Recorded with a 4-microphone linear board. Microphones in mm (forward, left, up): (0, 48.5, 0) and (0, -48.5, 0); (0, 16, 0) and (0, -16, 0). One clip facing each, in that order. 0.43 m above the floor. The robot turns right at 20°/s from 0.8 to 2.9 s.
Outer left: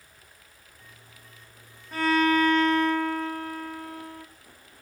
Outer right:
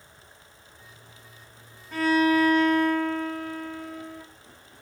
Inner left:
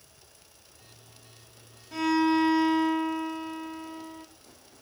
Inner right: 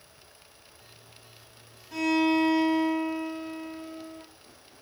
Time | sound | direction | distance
1.9 | a violin | centre (ahead or behind) | 5 m